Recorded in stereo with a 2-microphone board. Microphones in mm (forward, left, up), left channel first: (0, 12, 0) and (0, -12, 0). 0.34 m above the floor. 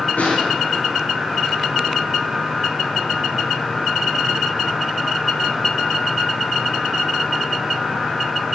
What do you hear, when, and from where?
0.2 s a snare drum: 75° left (ahead or behind), 4.5 m